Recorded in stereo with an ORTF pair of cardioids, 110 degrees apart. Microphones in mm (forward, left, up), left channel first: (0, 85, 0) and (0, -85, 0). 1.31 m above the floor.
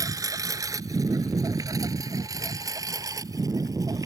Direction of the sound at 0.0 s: 20° right.